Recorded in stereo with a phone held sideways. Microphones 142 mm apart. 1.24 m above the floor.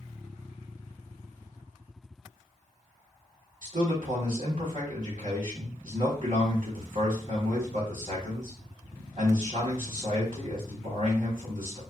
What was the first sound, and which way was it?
A man speaking, 70° right (ahead or behind).